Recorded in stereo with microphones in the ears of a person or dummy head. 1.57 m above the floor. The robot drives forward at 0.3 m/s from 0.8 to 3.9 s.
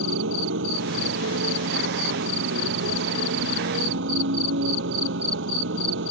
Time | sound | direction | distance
0.0 | a motorcycle | 65° right (ahead or behind) | ?